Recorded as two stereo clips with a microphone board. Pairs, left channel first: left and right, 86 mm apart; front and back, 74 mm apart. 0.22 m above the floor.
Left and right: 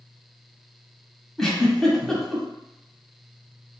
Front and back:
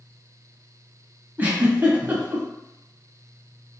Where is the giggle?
165° left, 0.9 m.